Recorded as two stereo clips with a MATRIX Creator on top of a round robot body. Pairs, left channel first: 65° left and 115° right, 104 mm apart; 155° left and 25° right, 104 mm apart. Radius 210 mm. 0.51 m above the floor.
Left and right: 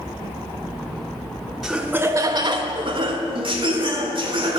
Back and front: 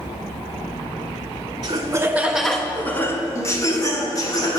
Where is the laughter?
25° right, 0.8 m; by 4.6 s 150° right, 2 m.